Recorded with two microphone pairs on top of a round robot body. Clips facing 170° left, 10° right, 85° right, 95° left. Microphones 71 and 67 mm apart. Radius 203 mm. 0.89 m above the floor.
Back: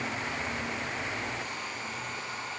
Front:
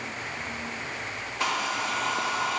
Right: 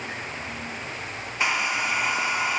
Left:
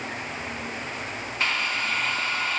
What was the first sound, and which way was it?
A hair dryer, 10° right.